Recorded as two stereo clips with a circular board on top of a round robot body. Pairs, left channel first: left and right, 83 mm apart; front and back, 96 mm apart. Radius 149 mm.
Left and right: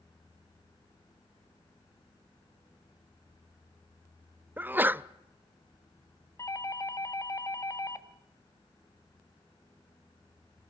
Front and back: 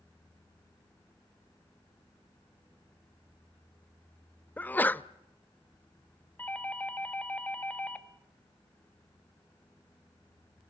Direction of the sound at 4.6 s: 50° right.